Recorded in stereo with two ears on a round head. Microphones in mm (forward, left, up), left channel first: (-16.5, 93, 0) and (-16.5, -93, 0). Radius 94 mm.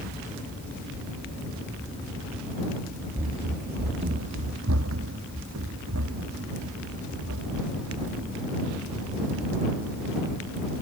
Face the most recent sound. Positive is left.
turn(degrees=-80)